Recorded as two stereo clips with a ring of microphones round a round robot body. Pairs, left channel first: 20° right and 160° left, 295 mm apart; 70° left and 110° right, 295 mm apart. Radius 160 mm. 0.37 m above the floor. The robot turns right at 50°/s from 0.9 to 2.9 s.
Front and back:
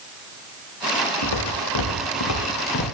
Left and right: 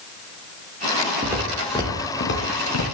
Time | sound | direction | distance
1.2 | footsteps | 35° right | 4 m